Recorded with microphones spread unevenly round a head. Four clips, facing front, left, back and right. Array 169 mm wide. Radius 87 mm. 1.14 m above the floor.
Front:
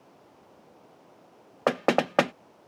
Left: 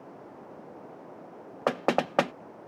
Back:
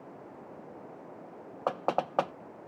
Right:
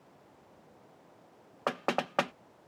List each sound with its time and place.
0.0 s running water: 125° left
1.7 s knocking: 15° left